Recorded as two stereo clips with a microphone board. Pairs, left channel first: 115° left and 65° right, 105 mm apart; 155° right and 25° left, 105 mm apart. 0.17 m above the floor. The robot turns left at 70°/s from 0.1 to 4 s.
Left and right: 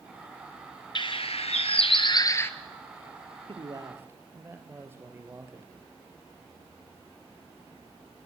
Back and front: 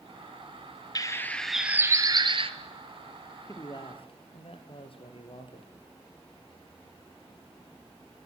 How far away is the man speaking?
About 3 m.